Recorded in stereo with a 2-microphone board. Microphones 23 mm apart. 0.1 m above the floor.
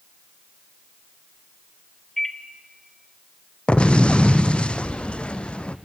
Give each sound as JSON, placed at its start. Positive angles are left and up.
{"t": 2.2, "sound": "a microwave", "side_deg": 15, "distance_m": 1.1}
{"t": 3.7, "sound": "an explosion", "side_deg": 60, "distance_m": 0.9}